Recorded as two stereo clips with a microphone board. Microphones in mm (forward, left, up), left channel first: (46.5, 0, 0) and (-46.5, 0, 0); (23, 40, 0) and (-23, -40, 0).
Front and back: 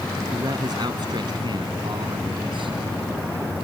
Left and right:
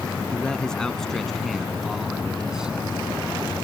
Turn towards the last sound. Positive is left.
turn(degrees=160)